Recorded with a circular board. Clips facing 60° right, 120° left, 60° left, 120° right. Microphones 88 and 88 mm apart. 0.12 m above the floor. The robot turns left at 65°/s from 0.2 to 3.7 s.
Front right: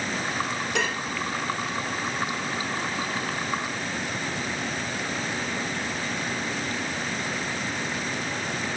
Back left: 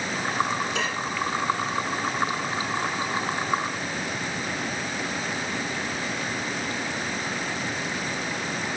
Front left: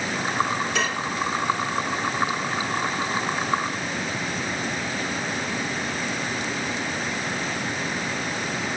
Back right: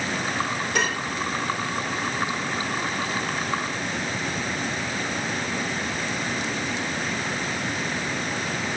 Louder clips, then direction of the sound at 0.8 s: Front right 1 dB, even; 85° right.